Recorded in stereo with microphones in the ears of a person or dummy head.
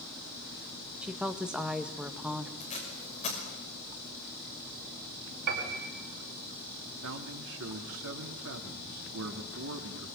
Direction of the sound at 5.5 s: 55° right (ahead or behind).